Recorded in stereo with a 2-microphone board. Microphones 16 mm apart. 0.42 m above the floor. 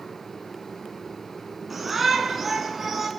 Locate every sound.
1.7 s a shout: 10° right (ahead or behind), 5.5 m